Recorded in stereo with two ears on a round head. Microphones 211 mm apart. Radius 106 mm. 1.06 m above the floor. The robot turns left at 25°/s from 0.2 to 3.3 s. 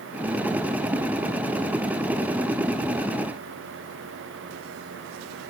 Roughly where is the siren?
I don't hear a siren.